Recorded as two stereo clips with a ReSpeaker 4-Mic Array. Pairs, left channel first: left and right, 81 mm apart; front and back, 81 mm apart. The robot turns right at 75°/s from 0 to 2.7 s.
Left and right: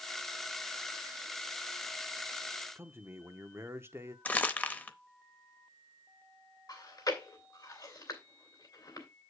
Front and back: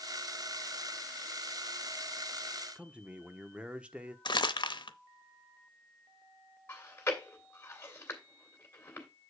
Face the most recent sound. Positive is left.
turn(degrees=60)